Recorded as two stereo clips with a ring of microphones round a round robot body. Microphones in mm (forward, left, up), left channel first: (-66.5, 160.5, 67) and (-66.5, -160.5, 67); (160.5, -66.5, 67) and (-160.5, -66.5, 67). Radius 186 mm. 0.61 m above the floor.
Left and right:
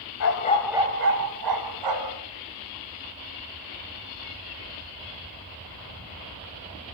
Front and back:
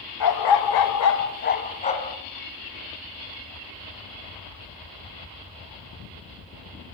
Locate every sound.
0.2 s a dog barking: 40° left, 1.1 m; by 2.2 s 75° right, 2.5 m